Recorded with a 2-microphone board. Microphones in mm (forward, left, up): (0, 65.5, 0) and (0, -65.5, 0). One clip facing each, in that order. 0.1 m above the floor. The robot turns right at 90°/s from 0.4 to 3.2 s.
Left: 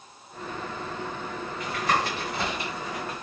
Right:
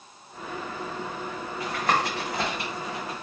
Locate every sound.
1.6 s tapping: 30° right (ahead or behind), 1.2 m; by 3.2 s 5° right (ahead or behind), 1.2 m